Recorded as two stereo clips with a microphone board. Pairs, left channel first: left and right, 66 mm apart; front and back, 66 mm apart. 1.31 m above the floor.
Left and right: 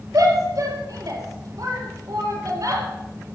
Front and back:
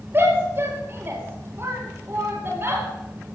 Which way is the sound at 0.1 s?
125° right.